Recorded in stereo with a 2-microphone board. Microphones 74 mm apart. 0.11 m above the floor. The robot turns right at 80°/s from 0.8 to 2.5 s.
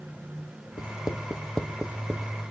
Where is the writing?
65° left (ahead or behind), 0.9 m; by 2.3 s 45° right (ahead or behind), 0.9 m.